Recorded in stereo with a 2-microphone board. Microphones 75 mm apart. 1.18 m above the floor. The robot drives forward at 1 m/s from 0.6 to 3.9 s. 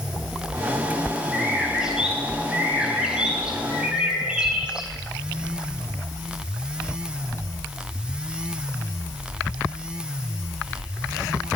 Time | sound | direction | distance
1.3 | a bird | 10° right (ahead or behind) | 10 m